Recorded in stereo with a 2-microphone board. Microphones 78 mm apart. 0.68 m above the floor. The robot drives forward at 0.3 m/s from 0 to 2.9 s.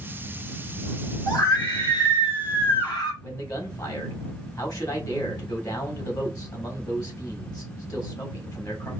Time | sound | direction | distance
1.3 | a scream | 55° left (ahead or behind) | 1.9 m
3.2 | a man speaking | 50° left (ahead or behind) | 1.7 m